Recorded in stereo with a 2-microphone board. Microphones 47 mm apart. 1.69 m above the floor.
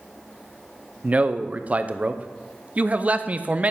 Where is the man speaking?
30° right (ahead or behind), 0.6 m.